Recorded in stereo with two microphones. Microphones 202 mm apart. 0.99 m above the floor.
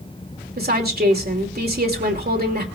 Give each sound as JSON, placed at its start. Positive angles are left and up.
{"t": 0.6, "sound": "a woman speaking", "side_deg": -50, "distance_m": 2.5}